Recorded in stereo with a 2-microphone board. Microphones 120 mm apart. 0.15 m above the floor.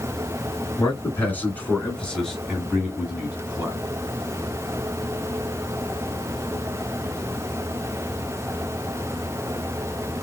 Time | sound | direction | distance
0.8 | a man speaking | 20° left (ahead or behind) | 2.5 m